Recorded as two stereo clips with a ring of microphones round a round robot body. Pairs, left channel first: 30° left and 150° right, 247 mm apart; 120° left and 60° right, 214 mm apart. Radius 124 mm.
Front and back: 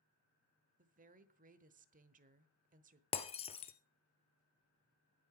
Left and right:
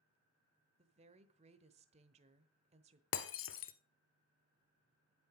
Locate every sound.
0.8 s a woman speaking: 110° right, 1.1 m
3.1 s breaking glass: 100° left, 1.1 m